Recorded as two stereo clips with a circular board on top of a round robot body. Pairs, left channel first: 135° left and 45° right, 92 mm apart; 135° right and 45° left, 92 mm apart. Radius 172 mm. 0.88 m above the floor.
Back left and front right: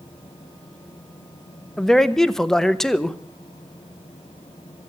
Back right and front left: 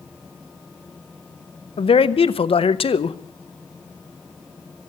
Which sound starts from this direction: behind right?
A man speaking, at 1.8 s.